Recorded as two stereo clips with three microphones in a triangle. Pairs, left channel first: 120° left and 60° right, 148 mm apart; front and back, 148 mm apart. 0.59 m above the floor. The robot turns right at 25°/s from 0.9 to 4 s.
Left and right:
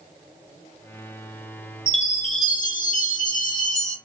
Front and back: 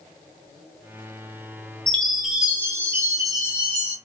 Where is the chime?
80° left, 0.9 m; by 4.0 s 135° left, 0.9 m.